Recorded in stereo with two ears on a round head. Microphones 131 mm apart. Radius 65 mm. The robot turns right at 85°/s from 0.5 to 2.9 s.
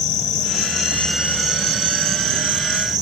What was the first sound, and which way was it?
An insect, 125° left.